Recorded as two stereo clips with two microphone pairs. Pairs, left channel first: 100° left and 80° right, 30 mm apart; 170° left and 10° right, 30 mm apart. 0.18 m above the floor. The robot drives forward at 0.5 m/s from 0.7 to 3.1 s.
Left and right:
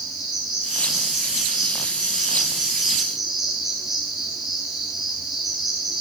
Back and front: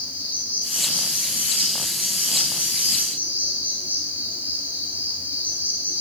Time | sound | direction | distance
0.0 | an insect | 5° left | 5 m